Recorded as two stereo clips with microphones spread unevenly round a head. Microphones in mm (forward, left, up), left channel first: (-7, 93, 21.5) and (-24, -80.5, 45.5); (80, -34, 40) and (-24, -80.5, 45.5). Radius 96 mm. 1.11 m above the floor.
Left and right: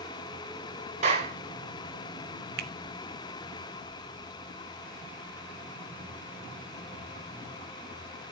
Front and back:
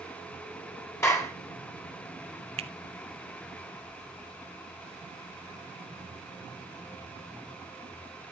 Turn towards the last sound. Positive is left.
turn(degrees=-125)